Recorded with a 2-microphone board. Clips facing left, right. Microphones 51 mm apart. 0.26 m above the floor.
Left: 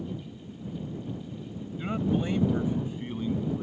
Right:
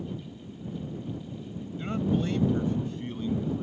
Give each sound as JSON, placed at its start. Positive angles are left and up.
{"t": 1.8, "sound": "a man speaking", "side_deg": 10}